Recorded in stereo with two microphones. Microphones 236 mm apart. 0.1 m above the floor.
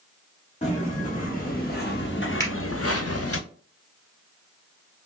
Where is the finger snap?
15° left (ahead or behind), 1.6 m.